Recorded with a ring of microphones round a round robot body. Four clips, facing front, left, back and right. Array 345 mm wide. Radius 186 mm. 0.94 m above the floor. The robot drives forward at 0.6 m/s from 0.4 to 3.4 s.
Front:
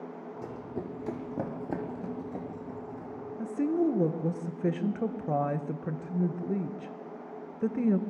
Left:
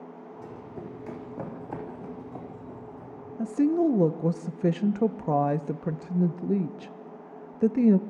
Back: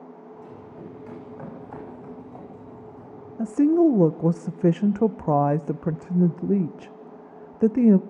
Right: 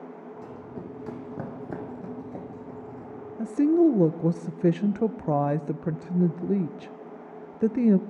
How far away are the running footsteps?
About 3.5 m.